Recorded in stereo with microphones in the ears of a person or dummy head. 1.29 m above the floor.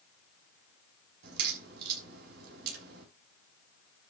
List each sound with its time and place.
1.2 s a crack: 65° right (ahead or behind), 5.5 m